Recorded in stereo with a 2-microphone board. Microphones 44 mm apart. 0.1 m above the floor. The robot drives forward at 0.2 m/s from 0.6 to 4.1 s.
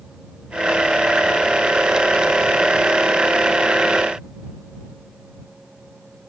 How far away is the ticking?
I don't hear ticking.